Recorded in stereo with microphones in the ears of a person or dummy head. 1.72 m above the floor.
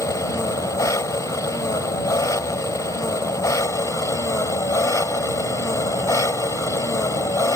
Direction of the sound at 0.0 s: 15° left (ahead or behind).